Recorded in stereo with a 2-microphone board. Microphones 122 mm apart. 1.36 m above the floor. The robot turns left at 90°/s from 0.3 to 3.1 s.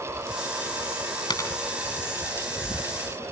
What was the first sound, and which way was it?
A dropped coin, 40° left (ahead or behind).